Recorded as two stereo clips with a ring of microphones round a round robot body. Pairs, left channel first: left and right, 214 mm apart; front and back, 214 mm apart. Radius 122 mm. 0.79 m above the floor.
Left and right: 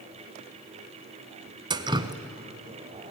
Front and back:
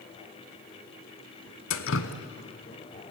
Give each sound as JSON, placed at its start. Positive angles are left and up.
{"t": 1.7, "sound": "dripping", "azimuth_deg": -25, "distance_m": 1.0}